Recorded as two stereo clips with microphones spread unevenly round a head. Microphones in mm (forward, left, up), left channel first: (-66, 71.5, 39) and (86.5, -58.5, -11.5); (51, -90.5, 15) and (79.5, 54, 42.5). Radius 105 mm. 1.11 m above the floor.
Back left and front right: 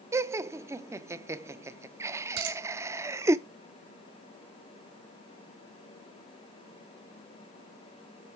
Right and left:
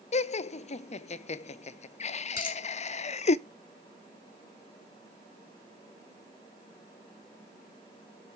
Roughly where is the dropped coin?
Right.